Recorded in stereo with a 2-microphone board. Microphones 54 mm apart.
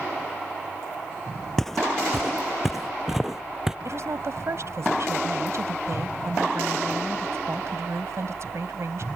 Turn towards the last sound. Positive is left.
turn(degrees=-55)  # may be behind; listen again after turning